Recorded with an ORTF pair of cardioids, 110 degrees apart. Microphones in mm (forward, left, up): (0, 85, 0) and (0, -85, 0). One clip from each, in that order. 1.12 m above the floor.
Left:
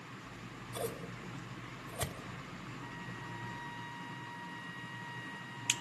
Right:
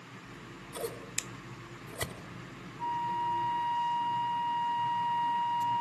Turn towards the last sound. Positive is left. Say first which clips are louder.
# right 19 dB
turn(degrees=-35)